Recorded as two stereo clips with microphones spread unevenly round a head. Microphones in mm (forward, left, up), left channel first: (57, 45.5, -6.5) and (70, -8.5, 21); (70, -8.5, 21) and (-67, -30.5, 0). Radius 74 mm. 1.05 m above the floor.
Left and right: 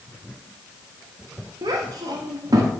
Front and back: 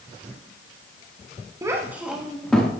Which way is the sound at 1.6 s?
100° right.